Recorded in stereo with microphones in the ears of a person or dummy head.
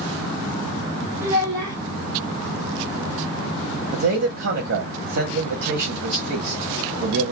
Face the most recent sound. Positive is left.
turn(degrees=-65)  # may be behind; listen again after turning